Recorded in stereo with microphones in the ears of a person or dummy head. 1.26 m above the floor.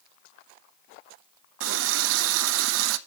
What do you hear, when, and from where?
1.6 s a running tap: 70° right (ahead or behind), 0.5 m